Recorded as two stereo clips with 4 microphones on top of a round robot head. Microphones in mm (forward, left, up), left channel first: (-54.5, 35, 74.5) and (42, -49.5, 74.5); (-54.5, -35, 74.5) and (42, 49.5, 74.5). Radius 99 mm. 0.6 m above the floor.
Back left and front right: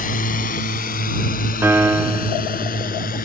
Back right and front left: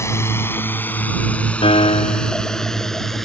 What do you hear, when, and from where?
0.0 s a drone: 150° left; by 3.3 s 135° left
1.6 s a piano: 110° right